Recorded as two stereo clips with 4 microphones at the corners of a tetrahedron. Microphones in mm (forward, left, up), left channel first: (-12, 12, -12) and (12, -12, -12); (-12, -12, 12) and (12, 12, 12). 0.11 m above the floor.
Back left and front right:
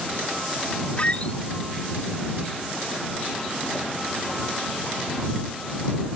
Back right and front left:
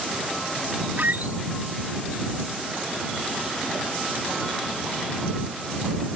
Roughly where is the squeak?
Left.